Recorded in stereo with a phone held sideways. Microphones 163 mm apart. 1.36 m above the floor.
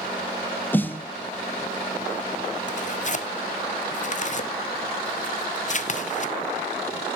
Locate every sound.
0.7 s a snare drum: 10° left (ahead or behind), 0.7 m
2.7 s tearing paper: 50° left (ahead or behind), 0.7 m